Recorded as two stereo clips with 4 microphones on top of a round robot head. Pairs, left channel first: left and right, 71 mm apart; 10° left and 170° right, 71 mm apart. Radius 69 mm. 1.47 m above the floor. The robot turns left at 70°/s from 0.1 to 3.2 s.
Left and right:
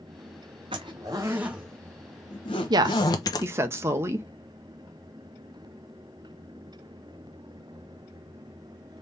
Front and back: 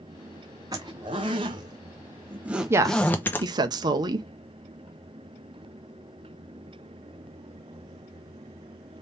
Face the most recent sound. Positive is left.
turn(degrees=-145)